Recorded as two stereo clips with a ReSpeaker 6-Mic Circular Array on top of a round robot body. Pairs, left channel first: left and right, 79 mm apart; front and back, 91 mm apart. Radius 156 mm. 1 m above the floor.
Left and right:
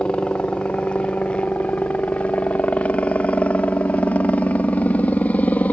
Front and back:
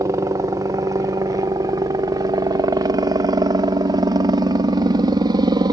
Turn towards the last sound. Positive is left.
turn(degrees=155)